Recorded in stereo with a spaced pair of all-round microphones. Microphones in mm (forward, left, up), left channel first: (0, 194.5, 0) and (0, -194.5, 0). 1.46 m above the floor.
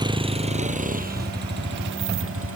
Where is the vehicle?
10° right (ahead or behind); by 2.6 s 35° right (ahead or behind).